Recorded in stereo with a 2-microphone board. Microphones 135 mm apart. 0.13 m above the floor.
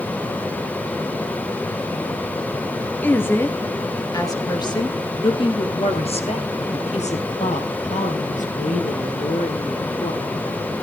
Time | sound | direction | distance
3.0 | a woman speaking | 15° left (ahead or behind) | 2.5 m